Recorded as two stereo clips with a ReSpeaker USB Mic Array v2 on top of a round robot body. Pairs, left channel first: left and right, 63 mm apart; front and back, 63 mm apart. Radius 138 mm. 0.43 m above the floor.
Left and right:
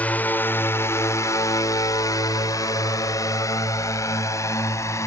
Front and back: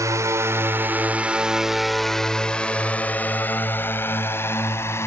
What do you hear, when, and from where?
0.0 s a drone: 155° left; by 5.1 s 50° left